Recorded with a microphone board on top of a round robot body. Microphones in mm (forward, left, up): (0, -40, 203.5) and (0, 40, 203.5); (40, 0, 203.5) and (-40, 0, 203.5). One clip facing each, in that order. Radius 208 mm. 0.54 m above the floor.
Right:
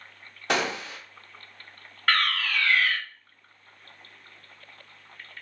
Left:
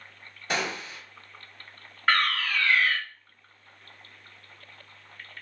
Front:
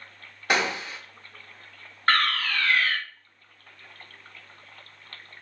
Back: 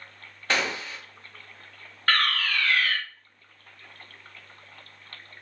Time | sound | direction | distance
0.5 | a gunshot | 75° right | 0.5 m
2.1 | a fire alarm | 20° left | 1.6 m